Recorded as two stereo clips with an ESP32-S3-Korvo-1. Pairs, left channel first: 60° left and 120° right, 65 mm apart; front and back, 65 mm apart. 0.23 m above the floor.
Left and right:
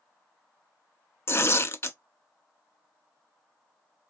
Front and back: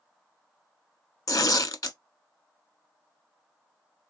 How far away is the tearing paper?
About 0.6 m.